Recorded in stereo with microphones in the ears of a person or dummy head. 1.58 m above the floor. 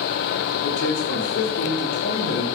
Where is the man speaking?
85° left, 3 m; by 2.5 s 80° left, 4.5 m.